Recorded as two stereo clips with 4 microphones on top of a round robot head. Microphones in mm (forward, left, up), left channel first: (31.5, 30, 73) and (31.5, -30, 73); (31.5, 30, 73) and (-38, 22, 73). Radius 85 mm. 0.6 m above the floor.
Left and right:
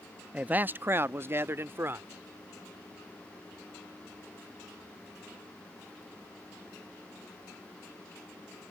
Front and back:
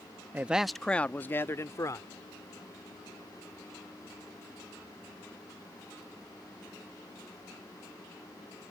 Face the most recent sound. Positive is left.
turn(degrees=-40)